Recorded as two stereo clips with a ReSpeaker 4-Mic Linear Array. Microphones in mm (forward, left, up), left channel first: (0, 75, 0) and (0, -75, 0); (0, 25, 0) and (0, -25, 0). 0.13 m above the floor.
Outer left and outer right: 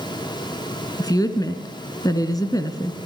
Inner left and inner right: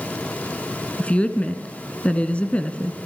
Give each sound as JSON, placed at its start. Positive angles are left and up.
{"t": 1.0, "sound": "a woman speaking", "side_deg": 25, "distance_m": 1.2}